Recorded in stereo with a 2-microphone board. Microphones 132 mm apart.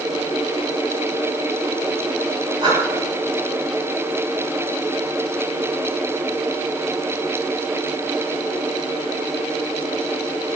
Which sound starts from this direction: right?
Breathing, at 2.6 s.